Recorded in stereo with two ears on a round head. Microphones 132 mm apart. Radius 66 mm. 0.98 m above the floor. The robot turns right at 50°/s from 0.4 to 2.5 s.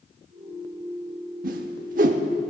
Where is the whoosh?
60° right (ahead or behind), 0.9 m; by 2.2 s 50° right (ahead or behind), 0.9 m.